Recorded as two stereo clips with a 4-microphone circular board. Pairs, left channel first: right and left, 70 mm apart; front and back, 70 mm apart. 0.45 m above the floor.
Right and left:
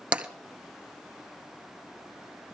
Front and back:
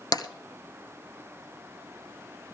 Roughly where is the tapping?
Ahead.